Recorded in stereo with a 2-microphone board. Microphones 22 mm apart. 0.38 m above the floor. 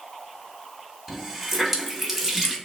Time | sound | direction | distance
1.1 | a running tap | 5° right (ahead or behind) | 0.8 m